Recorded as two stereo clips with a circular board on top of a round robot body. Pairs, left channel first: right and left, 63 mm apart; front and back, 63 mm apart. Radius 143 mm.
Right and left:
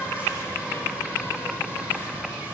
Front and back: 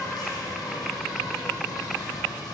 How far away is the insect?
About 8.5 m.